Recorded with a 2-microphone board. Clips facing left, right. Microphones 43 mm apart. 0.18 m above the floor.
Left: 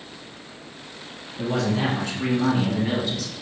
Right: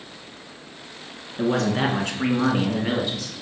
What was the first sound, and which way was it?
A man speaking, 55° right (ahead or behind).